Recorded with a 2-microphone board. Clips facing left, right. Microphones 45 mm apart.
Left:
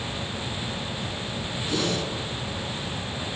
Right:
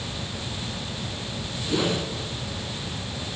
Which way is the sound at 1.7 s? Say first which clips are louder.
Right 2 dB; 15° right (ahead or behind).